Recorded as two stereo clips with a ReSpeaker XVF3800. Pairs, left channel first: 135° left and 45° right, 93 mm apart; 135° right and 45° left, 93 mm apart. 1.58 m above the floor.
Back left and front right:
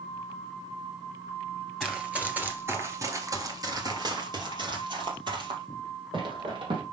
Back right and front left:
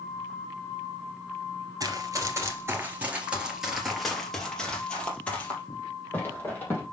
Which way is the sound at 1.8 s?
35° left.